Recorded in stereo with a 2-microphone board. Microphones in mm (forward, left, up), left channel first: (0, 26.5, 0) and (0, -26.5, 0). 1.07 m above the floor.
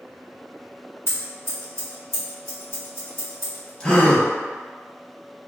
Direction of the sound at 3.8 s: 20° left (ahead or behind).